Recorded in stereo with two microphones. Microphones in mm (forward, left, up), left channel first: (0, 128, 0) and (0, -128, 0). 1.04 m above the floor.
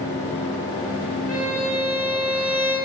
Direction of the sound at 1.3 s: 65° right (ahead or behind).